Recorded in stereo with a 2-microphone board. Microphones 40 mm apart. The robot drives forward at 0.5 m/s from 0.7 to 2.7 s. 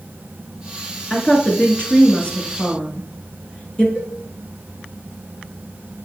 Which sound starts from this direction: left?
A cowbell, at 4.0 s.